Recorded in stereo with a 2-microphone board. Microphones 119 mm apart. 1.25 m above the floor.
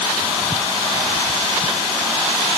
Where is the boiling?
I don't hear boiling.